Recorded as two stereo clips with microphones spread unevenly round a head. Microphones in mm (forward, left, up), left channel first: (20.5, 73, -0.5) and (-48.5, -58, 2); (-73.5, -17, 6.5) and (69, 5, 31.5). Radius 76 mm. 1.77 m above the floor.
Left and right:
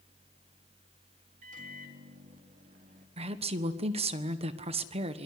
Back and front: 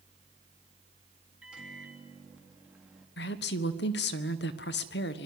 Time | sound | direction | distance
1.4 | a microwave | 75° right | 3.5 m
3.2 | a woman speaking | 170° right | 1.5 m